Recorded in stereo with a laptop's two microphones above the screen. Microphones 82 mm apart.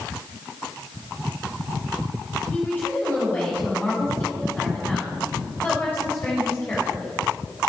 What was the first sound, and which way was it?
A woman speaking, 20° left (ahead or behind).